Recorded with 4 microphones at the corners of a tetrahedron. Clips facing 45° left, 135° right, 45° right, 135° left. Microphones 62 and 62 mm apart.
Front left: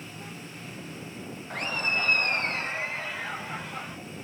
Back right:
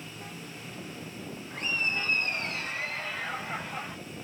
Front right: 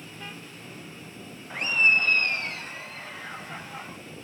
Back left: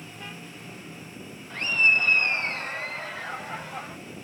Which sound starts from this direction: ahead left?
Laughter, at 1.5 s.